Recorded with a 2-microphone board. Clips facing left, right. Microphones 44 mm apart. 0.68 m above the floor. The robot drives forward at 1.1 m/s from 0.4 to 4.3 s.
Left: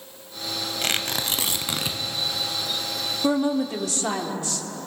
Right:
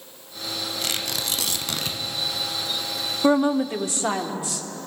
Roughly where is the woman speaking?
Right.